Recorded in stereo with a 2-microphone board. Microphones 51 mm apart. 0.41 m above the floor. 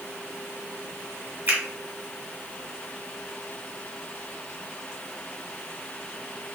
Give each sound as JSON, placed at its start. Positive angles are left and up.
{"t": 1.5, "sound": "a finger snap", "side_deg": -40, "distance_m": 1.1}